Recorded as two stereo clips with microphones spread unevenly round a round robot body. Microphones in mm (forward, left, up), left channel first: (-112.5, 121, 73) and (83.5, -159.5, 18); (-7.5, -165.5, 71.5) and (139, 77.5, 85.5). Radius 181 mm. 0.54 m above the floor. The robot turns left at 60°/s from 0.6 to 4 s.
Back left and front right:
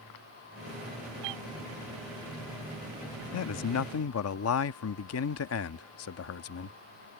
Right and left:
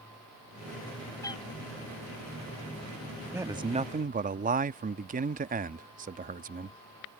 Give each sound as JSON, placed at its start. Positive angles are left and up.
{"t": 1.2, "sound": "a cat meowing", "azimuth_deg": -40}
{"t": 3.3, "sound": "a man speaking", "azimuth_deg": 140}